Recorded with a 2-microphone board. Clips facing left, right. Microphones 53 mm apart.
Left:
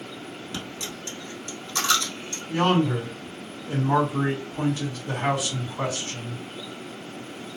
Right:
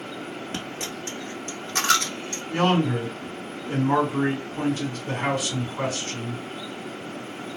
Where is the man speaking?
45° right (ahead or behind), 1.6 m.